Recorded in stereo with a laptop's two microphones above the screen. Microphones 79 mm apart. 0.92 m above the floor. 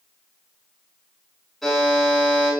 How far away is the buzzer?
About 6 m.